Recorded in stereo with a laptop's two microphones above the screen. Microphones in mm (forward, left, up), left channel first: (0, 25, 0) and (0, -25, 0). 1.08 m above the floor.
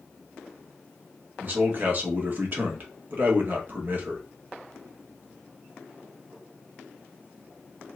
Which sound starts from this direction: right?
A man speaking, at 1.4 s.